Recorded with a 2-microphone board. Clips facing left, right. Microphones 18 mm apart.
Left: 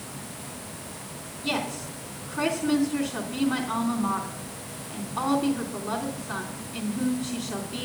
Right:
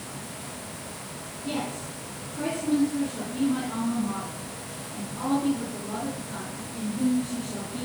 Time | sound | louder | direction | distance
1.4 | a woman speaking | left 3 dB | 65° left (ahead or behind) | 3 m